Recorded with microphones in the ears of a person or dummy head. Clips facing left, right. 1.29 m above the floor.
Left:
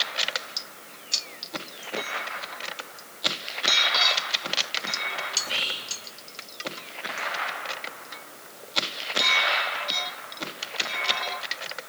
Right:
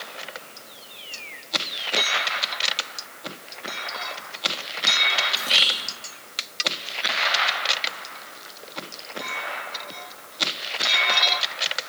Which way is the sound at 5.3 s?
40° right (ahead or behind).